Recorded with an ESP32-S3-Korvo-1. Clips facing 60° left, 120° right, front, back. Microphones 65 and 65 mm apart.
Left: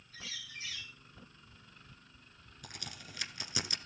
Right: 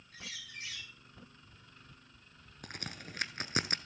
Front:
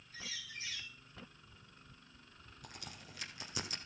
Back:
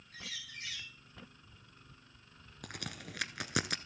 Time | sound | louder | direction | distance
0.1 | a bird | even, even | 150° right | 4.5 m
2.6 | a crack | right 4 dB, back 8 dB | 165° right | 1.1 m